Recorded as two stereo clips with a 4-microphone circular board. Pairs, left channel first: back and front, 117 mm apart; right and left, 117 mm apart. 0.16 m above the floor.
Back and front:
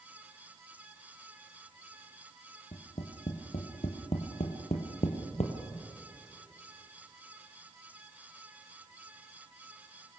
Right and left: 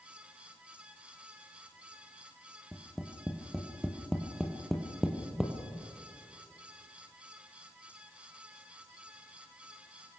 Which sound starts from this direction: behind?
Tapping, at 2.7 s.